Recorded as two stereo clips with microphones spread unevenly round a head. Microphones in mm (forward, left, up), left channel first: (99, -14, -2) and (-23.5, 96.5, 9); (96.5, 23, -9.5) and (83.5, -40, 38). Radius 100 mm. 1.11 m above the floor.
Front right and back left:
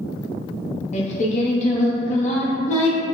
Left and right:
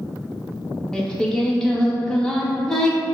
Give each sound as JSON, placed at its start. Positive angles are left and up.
{"t": 0.9, "sound": "singing", "azimuth_deg": -60, "distance_m": 0.5}